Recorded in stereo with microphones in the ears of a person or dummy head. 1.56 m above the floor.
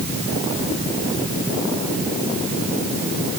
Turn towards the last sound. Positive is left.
No sound to turn to.